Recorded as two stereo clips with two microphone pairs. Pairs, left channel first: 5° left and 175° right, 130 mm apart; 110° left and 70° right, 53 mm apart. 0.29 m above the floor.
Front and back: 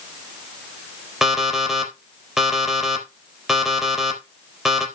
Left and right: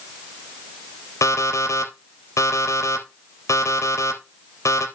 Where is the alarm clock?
100° left, 3.5 m.